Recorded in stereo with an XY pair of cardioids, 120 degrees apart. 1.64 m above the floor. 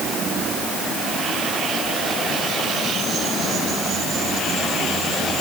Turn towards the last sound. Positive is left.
No sound to turn to.